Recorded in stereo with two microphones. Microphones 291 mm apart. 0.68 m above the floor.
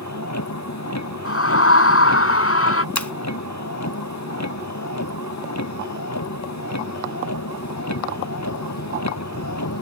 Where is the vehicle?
65° left (ahead or behind).